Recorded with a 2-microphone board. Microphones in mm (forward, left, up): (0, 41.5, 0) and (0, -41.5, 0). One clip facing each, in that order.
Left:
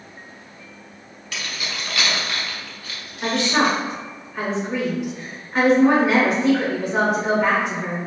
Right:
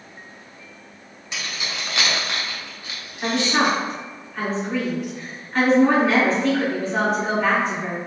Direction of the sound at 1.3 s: 20° right (ahead or behind).